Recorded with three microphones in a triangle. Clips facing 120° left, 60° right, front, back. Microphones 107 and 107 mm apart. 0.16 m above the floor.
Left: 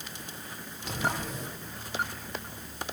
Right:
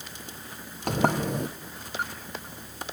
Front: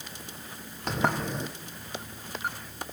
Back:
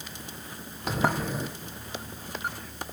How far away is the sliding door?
About 2.0 m.